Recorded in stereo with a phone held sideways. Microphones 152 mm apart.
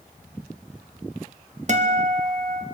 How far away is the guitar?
About 1.3 m.